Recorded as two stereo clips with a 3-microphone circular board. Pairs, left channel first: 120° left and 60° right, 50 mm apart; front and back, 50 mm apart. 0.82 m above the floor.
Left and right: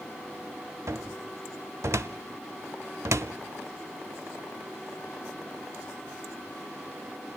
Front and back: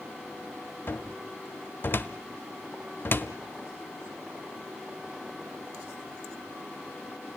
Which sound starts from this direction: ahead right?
A cupboard door, at 0.9 s.